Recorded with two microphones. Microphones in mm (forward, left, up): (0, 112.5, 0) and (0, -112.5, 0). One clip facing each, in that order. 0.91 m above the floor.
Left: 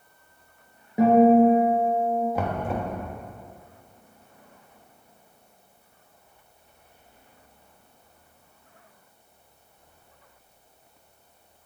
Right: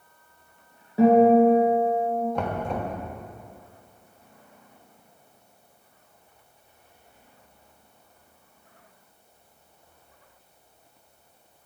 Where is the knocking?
5° left (ahead or behind), 0.9 m.